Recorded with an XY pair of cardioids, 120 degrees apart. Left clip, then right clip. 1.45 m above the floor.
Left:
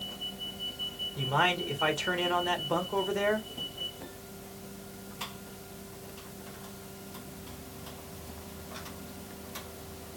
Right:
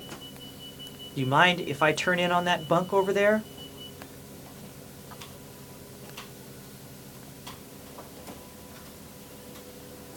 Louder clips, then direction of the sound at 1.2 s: Right 6 dB; 40° right.